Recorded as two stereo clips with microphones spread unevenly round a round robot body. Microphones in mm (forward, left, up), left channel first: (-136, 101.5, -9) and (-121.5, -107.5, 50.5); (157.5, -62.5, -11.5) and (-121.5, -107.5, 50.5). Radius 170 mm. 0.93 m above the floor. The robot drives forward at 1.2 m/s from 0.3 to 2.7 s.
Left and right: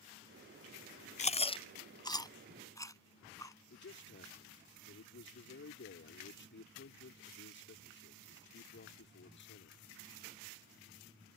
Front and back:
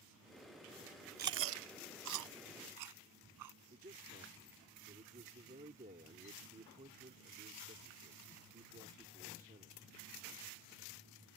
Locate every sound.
1.2 s chewing: 155° left; by 3.5 s 175° left
3.7 s a man speaking: 120° left